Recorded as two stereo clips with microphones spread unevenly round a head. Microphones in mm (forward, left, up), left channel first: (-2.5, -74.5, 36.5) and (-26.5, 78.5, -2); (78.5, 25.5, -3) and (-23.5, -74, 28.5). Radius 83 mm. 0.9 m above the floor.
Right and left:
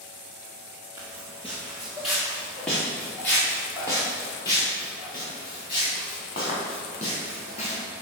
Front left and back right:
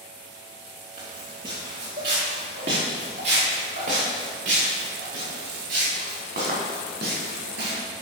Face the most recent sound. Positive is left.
turn(degrees=-130)